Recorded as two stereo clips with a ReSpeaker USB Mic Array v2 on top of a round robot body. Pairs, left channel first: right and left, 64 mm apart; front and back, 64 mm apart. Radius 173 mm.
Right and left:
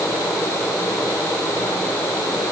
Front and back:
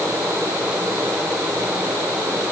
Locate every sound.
Only background noise.